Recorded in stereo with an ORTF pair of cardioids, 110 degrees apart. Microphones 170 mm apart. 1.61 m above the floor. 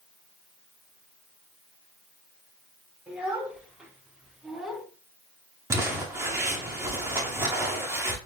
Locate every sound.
3.1 s a child speaking: 10° right, 4 m; by 4.8 s straight ahead, 2 m
5.7 s crumpling: 20° right, 2.5 m